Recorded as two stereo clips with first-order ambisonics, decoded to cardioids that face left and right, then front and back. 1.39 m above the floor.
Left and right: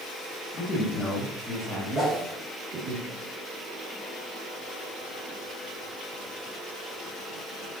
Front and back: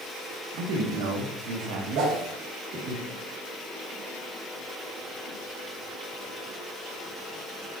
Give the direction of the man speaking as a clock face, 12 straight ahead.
7 o'clock.